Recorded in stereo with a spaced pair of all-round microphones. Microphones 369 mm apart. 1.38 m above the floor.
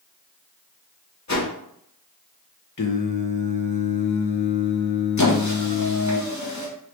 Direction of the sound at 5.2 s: 50° left (ahead or behind).